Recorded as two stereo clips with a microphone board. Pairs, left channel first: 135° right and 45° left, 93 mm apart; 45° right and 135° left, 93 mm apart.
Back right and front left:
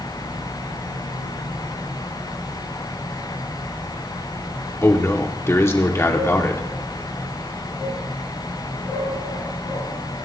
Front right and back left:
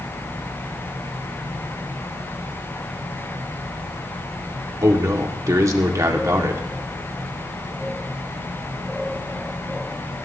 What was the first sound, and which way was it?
A man speaking, 175° left.